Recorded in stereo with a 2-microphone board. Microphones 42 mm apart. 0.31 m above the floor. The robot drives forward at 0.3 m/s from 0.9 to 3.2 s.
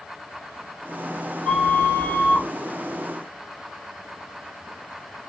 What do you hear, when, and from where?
1.4 s a flute: 20° left (ahead or behind), 1.0 m; by 2.5 s 25° left (ahead or behind), 0.8 m